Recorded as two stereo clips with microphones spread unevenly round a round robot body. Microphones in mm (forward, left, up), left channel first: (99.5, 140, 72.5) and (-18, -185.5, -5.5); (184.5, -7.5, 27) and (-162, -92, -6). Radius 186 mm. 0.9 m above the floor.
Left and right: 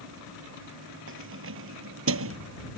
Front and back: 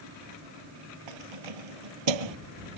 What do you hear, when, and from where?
1.1 s keys jangling: 170° right; by 2.4 s 165° right